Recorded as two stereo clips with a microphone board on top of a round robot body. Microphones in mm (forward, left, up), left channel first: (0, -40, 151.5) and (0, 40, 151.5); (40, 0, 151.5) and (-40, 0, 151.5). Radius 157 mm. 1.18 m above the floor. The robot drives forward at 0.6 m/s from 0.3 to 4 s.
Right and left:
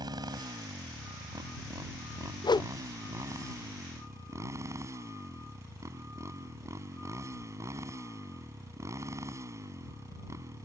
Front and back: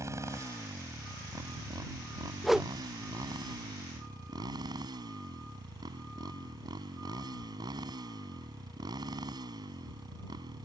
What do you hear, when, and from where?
0.0 s a motorcycle: 125° left; by 10.7 s 145° left
2.4 s a whoosh: 90° right; by 2.7 s 105° right